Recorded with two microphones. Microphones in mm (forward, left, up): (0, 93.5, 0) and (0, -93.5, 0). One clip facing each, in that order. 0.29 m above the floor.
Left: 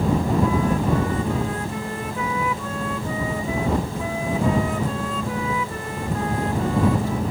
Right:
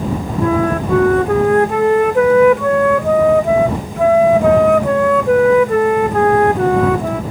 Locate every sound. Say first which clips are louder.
0.4 s a flute: right 5 dB; 70° right (ahead or behind)